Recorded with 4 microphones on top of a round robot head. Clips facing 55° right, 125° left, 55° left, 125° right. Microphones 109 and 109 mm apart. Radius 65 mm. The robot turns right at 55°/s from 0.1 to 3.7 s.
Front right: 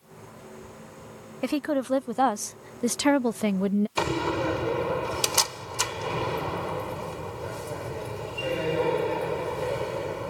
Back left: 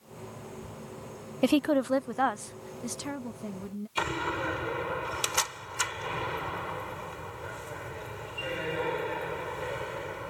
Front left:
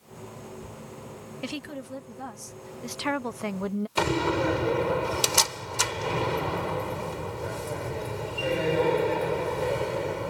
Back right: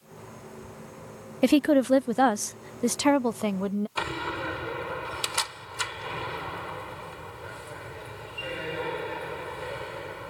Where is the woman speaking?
165° right; by 3.9 s 40° right.